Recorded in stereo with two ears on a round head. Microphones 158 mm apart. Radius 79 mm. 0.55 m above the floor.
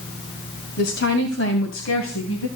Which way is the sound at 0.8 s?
60° left (ahead or behind).